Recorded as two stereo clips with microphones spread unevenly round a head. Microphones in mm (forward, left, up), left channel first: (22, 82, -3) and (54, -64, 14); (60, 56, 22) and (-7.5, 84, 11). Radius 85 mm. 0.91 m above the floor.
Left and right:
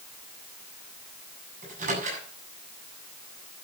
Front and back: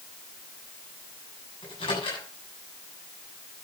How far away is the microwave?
About 8 m.